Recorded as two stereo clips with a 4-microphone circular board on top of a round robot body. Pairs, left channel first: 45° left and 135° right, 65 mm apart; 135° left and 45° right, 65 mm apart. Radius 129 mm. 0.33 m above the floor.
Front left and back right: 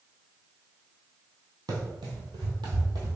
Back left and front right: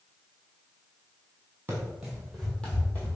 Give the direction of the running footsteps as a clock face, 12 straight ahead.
4 o'clock.